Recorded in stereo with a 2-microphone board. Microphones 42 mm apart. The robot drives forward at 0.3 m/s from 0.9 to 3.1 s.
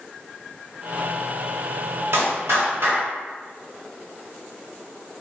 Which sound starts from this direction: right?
A clap, at 2.1 s.